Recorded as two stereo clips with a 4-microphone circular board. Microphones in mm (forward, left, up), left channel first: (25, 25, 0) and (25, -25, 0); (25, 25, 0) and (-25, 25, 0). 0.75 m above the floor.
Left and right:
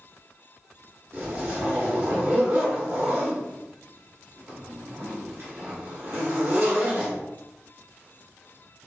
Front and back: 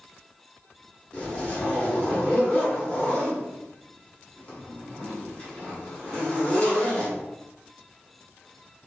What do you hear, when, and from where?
1.1 s a zipper: 65° right, 1.5 m